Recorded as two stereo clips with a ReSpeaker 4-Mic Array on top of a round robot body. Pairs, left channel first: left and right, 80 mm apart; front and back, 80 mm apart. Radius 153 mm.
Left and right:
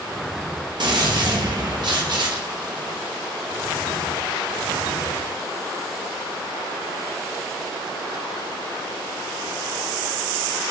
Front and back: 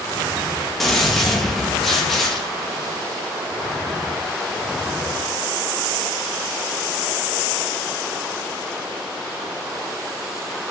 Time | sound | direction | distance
0.8 | a gunshot | 90° right | 1.1 m